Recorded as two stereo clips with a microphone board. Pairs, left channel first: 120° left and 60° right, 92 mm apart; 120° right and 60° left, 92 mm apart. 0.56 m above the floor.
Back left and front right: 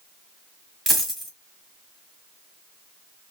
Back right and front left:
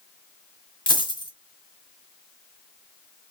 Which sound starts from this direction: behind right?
A dropped coin, at 0.9 s.